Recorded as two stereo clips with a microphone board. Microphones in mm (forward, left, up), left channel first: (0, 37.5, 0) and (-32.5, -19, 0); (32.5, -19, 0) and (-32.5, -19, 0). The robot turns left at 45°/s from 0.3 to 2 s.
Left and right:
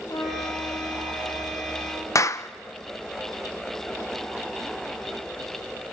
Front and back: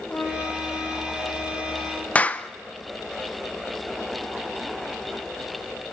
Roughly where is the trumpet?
Ahead left.